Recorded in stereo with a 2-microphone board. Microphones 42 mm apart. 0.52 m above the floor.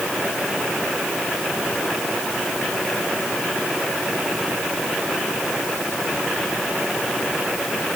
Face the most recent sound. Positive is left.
No sound to turn to.